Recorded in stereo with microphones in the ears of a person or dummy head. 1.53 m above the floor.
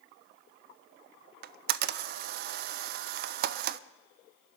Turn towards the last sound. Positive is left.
turn(degrees=-55)  # may be behind; listen again after turning